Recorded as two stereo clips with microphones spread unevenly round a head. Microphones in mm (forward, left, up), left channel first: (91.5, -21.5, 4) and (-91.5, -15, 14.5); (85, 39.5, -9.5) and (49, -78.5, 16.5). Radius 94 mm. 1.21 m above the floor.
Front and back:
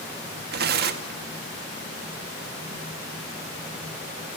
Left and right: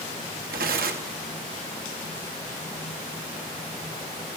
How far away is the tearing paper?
About 2.0 m.